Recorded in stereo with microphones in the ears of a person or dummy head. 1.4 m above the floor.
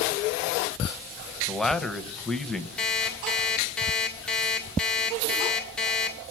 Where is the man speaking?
Centre (ahead or behind), 0.8 m.